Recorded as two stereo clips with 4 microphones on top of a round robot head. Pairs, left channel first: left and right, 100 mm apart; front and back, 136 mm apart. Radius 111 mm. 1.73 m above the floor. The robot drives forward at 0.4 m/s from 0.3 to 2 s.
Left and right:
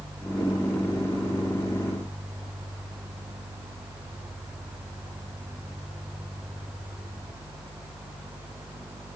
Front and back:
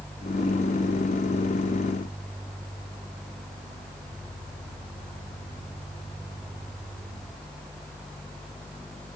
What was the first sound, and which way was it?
Only background noise.